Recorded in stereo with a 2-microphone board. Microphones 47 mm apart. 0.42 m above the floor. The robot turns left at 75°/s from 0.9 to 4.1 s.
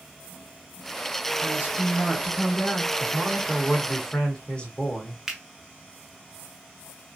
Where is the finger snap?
10° right (ahead or behind), 0.9 m.